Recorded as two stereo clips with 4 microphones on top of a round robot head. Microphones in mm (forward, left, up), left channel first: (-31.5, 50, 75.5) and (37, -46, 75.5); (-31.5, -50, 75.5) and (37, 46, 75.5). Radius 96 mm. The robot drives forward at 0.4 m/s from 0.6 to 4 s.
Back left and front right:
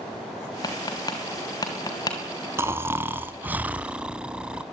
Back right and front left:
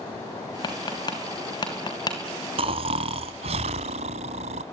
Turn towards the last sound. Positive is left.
turn(degrees=25)